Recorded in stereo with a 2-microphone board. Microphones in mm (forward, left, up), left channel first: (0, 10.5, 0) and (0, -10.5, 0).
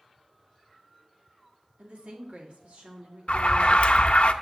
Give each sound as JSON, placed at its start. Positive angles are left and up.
{"t": 1.8, "sound": "a woman speaking", "side_deg": -70, "distance_m": 2.0}
{"t": 3.3, "sound": "an alarm", "side_deg": 60, "distance_m": 0.5}